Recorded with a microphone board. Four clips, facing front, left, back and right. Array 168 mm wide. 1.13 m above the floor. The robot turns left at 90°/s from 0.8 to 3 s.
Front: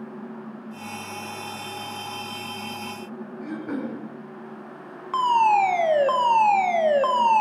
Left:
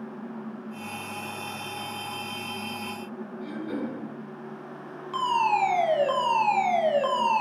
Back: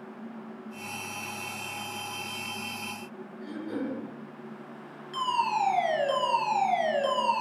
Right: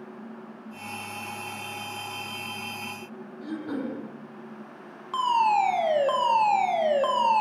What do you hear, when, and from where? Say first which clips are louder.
3.4 s throat clearing: right 1 dB, front 3 dB; 30° right, 6.5 m
5.1 s a fire alarm: right 2 dB, front 9 dB; 15° right, 4.5 m